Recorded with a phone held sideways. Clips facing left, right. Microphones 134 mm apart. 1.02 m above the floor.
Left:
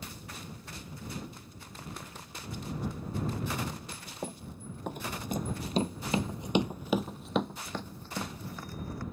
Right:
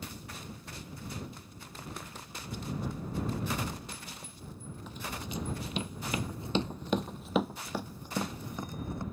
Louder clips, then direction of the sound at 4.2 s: Left 6 dB; 60° left (ahead or behind).